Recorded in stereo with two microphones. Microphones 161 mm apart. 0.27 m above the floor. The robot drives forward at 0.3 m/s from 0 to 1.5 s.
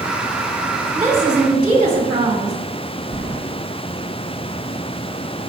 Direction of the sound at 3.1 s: 25° right (ahead or behind).